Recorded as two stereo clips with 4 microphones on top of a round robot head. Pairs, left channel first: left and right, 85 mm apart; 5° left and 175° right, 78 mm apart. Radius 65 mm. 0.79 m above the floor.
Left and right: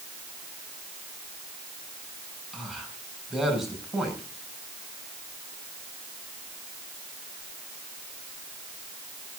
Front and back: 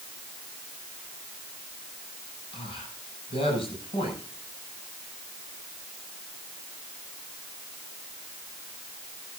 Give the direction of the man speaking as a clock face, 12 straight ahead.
12 o'clock.